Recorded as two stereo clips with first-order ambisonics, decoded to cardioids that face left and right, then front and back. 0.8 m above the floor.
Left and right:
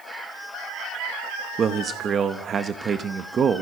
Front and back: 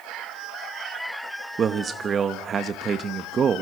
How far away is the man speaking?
About 0.7 m.